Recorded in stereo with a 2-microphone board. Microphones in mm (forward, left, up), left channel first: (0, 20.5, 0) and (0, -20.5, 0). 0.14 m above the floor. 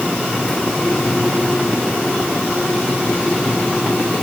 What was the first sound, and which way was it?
Only background noise.